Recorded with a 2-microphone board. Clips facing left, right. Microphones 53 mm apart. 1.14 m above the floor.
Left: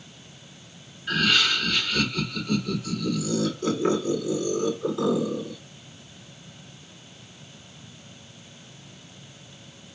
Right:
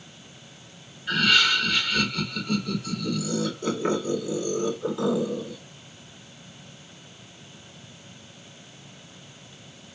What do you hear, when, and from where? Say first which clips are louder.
1.1 s laughter: right 2 dB; centre (ahead or behind), 2.5 m